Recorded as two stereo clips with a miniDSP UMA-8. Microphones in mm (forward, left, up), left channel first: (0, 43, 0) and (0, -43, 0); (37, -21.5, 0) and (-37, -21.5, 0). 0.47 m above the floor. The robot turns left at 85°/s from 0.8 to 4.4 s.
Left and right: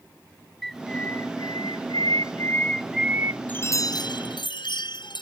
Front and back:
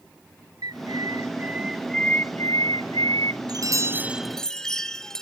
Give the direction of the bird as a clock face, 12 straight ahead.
6 o'clock.